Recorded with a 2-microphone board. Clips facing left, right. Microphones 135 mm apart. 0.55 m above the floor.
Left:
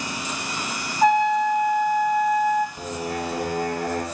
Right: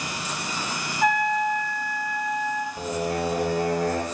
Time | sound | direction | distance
1.0 | a trumpet | 40° left (ahead or behind) | 0.9 m
2.8 | singing | 40° right (ahead or behind) | 1.7 m